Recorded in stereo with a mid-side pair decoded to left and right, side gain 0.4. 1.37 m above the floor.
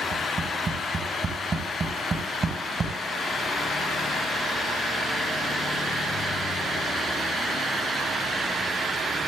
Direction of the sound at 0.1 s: 45° right.